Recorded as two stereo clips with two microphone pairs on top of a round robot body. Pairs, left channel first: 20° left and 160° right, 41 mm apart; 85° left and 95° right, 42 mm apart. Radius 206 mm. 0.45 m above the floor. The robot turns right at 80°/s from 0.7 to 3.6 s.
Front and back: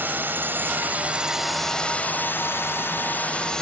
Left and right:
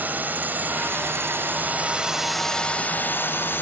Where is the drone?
135° right; by 3.6 s 100° left.